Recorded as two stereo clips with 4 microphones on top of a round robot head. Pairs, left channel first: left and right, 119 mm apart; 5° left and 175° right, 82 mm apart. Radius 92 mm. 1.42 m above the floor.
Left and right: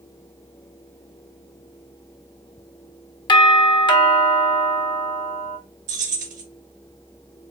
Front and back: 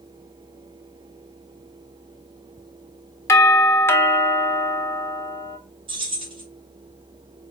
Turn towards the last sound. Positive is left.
turn(degrees=-125)